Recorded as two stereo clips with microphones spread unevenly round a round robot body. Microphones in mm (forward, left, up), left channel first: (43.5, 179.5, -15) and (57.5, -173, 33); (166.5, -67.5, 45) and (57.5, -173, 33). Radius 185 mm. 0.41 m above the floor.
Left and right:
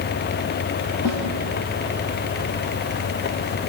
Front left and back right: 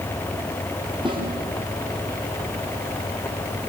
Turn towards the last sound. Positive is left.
turn(degrees=140)